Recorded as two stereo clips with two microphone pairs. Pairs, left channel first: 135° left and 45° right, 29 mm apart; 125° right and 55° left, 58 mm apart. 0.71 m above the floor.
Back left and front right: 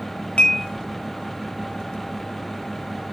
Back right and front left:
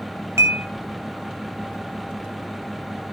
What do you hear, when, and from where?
0.4 s dishes clattering: 90° left, 3 m